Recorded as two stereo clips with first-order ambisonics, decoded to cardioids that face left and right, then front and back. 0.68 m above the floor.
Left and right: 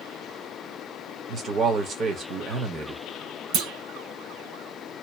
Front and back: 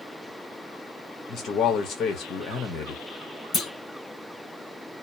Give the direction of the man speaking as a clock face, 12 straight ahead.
1 o'clock.